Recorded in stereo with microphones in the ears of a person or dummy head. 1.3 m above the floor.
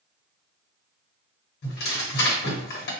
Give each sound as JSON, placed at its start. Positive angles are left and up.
{"t": 1.6, "sound": "tearing paper", "side_deg": 60, "distance_m": 1.2}